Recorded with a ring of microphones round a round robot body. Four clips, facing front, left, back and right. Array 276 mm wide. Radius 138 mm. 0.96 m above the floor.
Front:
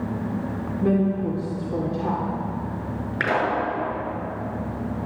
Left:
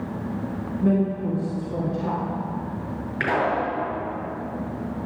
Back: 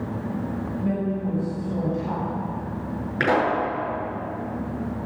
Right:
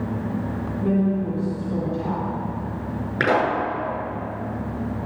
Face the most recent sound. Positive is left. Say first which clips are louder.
# right 3 dB, back 2 dB
turn(degrees=-90)